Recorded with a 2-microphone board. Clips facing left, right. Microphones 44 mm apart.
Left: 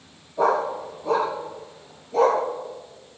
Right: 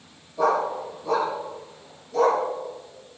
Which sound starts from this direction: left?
A dog barking, at 0.4 s.